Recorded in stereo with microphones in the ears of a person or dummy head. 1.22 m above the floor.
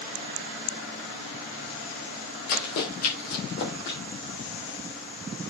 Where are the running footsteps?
50° left (ahead or behind), 2.5 m; by 4.0 s 65° left (ahead or behind), 3 m.